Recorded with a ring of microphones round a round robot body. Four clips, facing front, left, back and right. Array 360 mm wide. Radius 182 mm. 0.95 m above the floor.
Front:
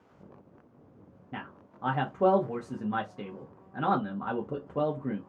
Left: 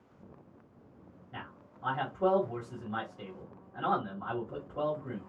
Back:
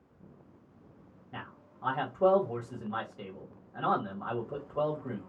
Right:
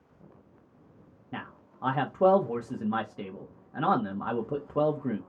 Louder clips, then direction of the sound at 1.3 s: Right 6 dB, front 3 dB; 55° right.